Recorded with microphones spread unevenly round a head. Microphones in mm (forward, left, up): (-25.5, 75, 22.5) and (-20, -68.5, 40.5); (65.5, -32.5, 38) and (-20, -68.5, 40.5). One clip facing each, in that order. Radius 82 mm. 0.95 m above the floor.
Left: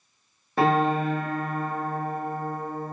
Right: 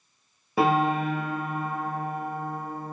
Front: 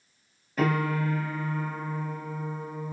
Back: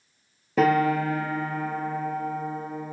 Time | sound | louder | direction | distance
0.6 | a piano | left 1 dB, back 6 dB | 170° right | 0.9 m